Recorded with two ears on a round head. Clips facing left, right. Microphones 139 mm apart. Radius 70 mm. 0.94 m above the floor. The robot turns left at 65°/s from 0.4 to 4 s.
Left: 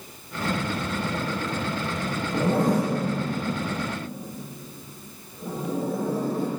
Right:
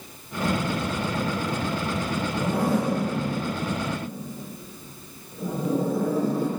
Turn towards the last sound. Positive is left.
turn(degrees=-70)  # may be behind; listen again after turning